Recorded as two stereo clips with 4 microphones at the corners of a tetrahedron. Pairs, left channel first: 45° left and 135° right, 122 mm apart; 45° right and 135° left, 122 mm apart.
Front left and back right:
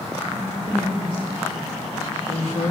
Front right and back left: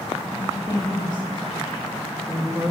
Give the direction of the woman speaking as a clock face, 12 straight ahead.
12 o'clock.